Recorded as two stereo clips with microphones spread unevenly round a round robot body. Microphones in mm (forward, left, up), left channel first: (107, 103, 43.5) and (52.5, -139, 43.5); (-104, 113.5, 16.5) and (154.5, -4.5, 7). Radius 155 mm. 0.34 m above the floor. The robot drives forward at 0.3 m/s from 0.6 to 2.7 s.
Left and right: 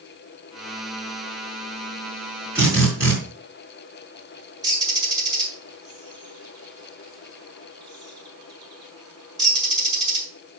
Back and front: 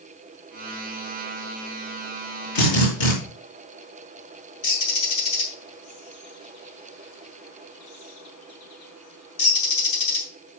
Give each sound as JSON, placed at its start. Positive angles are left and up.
{"t": 2.5, "sound": "a drill", "azimuth_deg": 175, "distance_m": 5.0}
{"t": 4.6, "sound": "a bird", "azimuth_deg": 180, "distance_m": 3.5}